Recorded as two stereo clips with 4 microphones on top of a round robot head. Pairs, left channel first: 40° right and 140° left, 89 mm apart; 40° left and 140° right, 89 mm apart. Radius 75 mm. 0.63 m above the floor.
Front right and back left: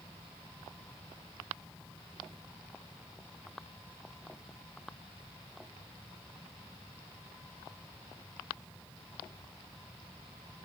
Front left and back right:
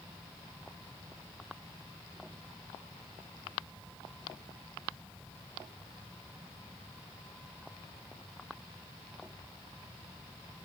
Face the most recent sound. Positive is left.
No sound to turn to.